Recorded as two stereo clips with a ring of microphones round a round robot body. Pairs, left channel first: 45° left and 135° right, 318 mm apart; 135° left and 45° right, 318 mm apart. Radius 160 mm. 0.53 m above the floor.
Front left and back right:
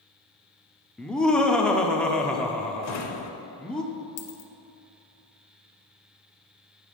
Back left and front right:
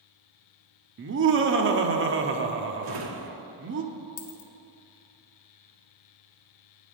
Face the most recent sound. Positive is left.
turn(degrees=100)